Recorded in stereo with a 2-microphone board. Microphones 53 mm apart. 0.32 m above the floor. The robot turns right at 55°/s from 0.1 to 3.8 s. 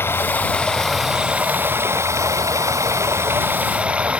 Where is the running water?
135° left; by 4.2 s 25° right.